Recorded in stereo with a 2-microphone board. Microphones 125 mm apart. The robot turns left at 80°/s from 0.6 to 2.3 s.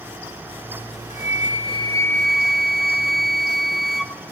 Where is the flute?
95° left, 1.1 m; by 4.1 s straight ahead, 1.1 m.